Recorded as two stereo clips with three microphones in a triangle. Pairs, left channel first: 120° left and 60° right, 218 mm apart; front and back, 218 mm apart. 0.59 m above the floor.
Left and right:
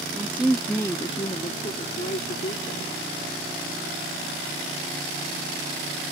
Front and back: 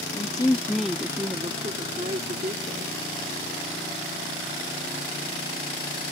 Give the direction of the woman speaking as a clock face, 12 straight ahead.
12 o'clock.